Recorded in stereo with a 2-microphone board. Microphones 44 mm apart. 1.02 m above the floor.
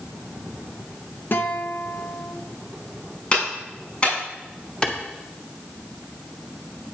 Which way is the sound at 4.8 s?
20° left (ahead or behind).